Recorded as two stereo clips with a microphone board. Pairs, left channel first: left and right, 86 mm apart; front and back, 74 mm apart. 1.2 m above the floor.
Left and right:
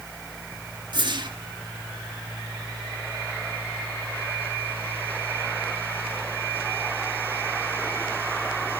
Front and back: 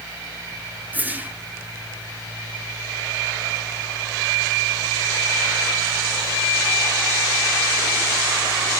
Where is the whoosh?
115° right, 1.4 m.